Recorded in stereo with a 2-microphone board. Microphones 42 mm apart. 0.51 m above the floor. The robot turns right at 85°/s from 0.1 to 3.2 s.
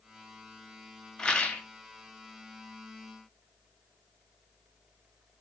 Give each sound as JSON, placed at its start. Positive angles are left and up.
{"t": 1.2, "sound": "a rattle", "azimuth_deg": 20, "distance_m": 0.8}